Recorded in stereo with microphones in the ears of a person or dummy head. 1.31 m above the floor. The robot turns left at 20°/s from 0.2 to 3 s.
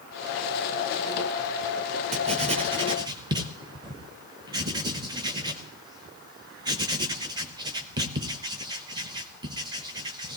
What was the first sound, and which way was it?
Writing, 40° right (ahead or behind).